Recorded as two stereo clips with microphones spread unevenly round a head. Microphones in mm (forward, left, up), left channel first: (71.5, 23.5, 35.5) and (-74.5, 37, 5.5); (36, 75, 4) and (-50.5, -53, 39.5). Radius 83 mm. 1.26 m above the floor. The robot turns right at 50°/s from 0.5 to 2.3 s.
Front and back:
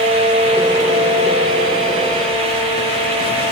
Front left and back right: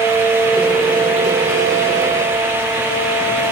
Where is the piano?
No piano in this recording.